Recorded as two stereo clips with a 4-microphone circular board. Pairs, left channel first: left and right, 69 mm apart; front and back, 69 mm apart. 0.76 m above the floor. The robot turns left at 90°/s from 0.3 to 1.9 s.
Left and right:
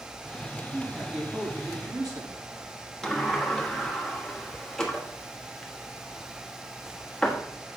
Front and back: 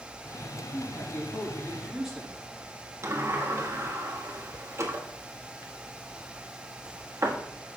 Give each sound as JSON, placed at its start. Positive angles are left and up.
{"t": 0.7, "sound": "a man speaking", "azimuth_deg": 10, "distance_m": 5.0}
{"t": 3.0, "sound": "a sliding door", "azimuth_deg": 170, "distance_m": 1.4}